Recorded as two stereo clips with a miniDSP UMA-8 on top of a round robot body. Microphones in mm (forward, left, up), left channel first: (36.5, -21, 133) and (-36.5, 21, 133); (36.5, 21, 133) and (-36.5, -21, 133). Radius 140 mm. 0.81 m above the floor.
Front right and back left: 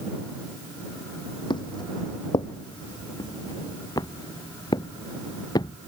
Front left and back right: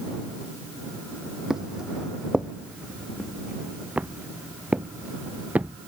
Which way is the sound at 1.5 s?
65° right.